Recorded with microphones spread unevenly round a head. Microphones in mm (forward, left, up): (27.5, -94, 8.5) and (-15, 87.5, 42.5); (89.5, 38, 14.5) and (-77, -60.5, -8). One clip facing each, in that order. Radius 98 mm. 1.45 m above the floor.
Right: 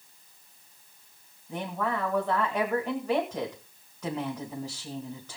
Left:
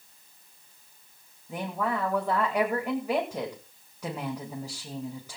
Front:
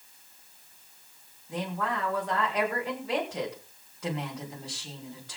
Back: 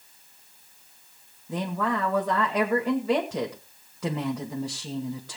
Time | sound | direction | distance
1.5 | a woman speaking | 175° right | 2 m